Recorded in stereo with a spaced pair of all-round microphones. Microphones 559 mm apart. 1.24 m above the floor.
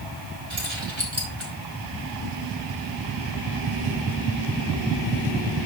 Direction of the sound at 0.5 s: 50° right (ahead or behind).